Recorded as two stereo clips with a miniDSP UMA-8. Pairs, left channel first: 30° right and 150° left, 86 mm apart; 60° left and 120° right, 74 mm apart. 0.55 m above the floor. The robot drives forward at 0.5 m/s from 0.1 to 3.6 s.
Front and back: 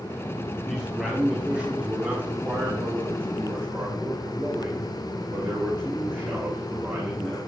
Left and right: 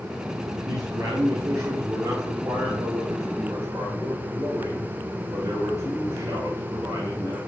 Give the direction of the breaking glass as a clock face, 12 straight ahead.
I don't hear breaking glass.